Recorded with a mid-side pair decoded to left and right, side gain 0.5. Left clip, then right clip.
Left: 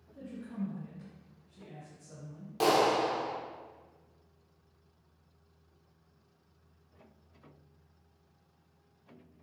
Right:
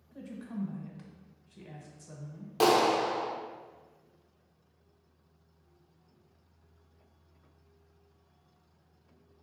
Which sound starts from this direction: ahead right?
A clap, at 2.6 s.